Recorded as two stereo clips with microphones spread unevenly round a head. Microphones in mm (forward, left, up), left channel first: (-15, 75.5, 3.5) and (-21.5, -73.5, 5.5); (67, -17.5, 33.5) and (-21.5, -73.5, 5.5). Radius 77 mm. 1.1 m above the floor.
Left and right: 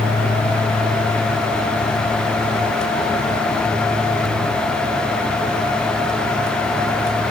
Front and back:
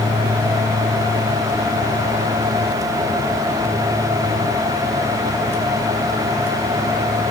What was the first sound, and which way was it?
Only background noise.